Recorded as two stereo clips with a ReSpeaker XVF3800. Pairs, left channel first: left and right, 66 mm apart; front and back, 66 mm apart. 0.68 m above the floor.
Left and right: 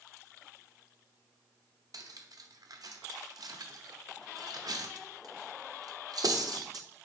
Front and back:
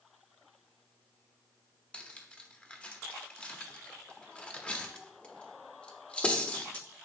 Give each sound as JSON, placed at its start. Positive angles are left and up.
{"t": 1.9, "sound": "cutlery clinking", "azimuth_deg": -70, "distance_m": 0.5}